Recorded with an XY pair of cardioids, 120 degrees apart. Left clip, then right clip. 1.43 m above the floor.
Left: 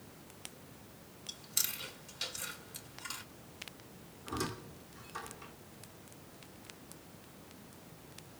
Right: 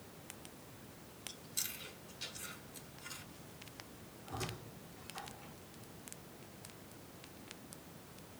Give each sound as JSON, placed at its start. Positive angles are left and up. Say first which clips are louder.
{"t": 1.3, "sound": "chewing", "louder": "left 6 dB", "azimuth_deg": 60, "distance_m": 2.5}
{"t": 4.3, "sound": "a squeak", "louder": "left 5 dB", "azimuth_deg": 55, "distance_m": 2.5}